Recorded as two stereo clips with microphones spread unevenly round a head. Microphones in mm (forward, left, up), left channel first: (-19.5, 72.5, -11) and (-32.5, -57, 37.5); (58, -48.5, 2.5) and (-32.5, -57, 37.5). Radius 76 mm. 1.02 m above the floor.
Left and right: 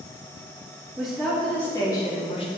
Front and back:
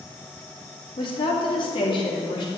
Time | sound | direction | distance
1.0 | a woman speaking | 5° right | 1.7 m